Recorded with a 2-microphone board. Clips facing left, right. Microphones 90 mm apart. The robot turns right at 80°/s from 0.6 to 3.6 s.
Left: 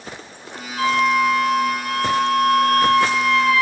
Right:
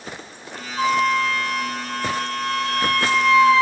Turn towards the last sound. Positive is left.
turn(degrees=-155)